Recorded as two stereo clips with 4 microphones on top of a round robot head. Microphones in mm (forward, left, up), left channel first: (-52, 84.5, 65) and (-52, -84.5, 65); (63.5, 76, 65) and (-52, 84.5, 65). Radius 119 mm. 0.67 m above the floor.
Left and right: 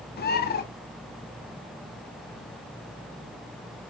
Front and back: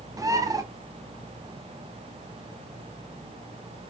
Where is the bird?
115° left, 1.4 m.